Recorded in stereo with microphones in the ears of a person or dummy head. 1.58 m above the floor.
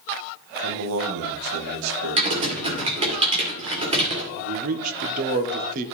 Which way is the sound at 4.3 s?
50° right (ahead or behind).